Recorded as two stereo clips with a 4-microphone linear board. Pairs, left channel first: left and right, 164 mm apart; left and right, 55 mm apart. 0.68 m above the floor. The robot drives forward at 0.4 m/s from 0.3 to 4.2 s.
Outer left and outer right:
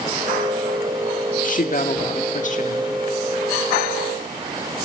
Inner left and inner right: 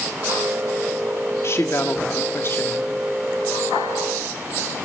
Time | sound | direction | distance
1.4 | a woman speaking | 50° left (ahead or behind) | 1.5 m